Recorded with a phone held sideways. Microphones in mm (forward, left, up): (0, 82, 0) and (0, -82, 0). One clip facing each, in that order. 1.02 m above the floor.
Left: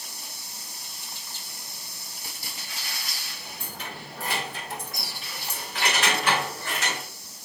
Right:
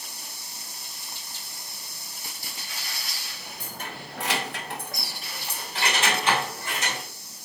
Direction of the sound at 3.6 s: 40° right (ahead or behind).